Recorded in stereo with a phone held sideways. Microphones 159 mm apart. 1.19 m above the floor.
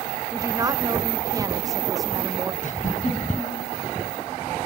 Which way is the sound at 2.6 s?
50° left (ahead or behind).